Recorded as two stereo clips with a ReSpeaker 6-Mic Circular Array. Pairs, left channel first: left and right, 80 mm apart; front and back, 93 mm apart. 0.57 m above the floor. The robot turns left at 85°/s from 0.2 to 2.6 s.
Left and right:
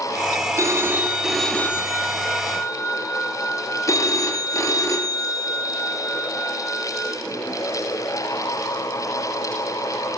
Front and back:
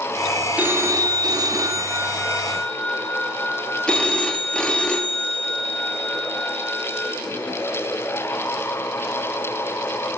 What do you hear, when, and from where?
0.6 s a phone ringing: 115° right, 0.6 m; by 7.1 s 75° left, 0.6 m